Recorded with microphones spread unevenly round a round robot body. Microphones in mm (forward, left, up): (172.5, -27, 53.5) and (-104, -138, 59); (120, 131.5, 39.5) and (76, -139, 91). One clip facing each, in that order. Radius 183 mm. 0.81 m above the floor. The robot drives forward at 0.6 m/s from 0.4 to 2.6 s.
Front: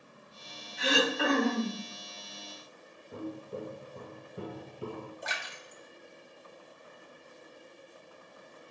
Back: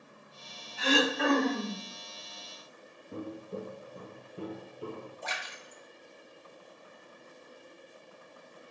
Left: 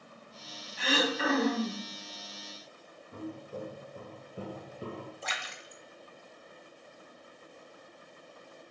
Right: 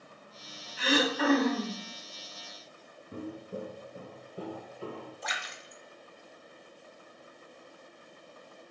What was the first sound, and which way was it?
Throat clearing, 50° right.